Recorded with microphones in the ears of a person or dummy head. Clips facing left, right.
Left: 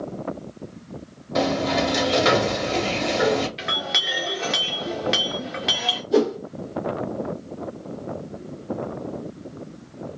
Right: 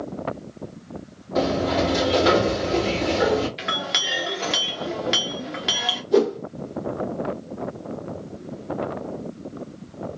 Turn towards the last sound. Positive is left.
turn(degrees=5)  # may be behind; listen again after turning